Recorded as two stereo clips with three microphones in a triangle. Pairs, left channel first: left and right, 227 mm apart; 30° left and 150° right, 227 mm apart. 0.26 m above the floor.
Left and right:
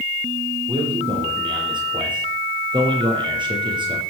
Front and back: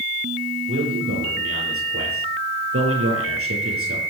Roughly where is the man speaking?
Behind.